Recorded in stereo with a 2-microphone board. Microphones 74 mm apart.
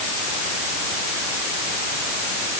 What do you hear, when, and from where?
Only background noise.